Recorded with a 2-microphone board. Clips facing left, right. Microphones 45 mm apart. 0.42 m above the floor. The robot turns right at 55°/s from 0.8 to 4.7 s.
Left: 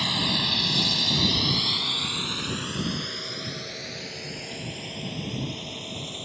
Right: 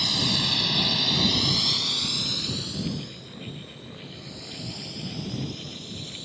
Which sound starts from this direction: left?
A drone, at 0.0 s.